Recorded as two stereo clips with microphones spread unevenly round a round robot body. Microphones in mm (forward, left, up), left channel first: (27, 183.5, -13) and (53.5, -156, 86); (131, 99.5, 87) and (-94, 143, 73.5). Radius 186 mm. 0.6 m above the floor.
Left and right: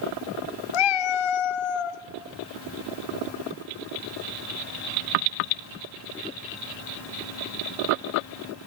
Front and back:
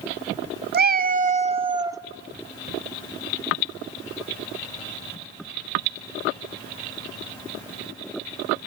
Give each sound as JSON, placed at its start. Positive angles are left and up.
{"t": 0.7, "sound": "a cat meowing", "azimuth_deg": 120, "distance_m": 1.4}